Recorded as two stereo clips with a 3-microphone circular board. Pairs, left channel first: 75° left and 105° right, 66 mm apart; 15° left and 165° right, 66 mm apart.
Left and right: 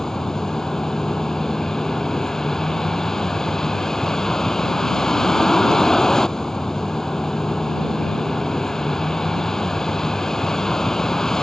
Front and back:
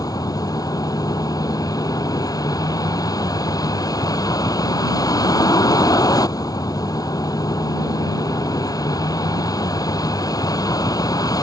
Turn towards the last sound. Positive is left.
turn(degrees=-5)